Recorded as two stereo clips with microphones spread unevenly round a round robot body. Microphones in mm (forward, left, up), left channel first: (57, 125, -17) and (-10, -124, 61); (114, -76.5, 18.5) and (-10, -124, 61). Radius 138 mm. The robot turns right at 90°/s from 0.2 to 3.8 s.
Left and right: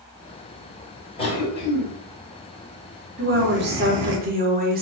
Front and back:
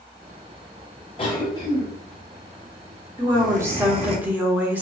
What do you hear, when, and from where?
1.2 s a cough: 25° left, 1.4 m; by 4.2 s 105° right, 1.4 m
3.2 s a woman speaking: 110° right, 1.2 m; by 4.8 s 55° right, 1.2 m